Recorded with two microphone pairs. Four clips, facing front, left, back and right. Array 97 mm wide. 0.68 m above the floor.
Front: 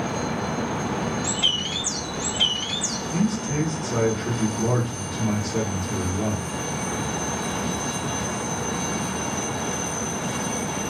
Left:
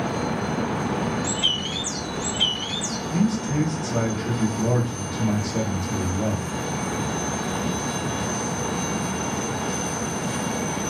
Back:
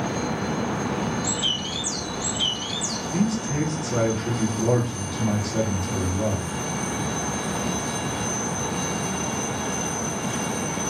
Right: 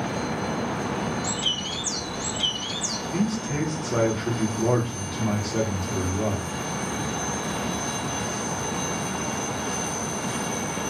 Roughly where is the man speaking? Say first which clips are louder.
Left 3 dB, even; right.